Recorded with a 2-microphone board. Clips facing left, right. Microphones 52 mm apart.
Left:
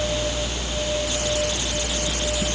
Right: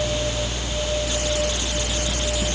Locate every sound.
Only background noise.